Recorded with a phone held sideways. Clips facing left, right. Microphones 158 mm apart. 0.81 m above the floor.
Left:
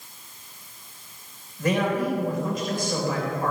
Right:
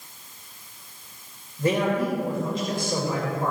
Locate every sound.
1.6 s a man speaking: 30° right (ahead or behind), 3 m